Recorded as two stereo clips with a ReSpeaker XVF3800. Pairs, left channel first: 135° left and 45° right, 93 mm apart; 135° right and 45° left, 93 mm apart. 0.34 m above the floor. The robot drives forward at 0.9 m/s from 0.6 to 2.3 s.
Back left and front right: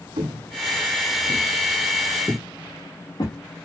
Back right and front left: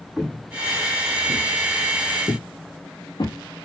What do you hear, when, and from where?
0.2 s footsteps: 40° right, 1.5 m; by 3.4 s 175° right, 3 m